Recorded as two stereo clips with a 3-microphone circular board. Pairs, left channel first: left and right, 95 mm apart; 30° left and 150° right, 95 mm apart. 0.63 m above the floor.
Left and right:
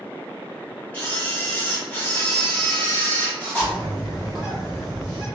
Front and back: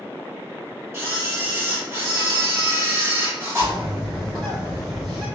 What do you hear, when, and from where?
0.9 s a camera shutter: 160° left, 1.2 m
3.6 s a bird: 175° right, 1.1 m